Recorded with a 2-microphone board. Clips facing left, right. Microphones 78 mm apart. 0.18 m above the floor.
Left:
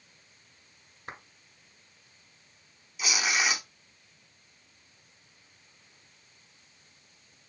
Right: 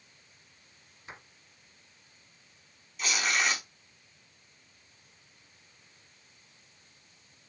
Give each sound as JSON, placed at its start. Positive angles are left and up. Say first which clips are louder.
{"t": 1.1, "sound": "a clap", "louder": "left 4 dB", "side_deg": 50, "distance_m": 1.9}
{"t": 3.0, "sound": "tearing paper", "louder": "even", "side_deg": 5, "distance_m": 0.6}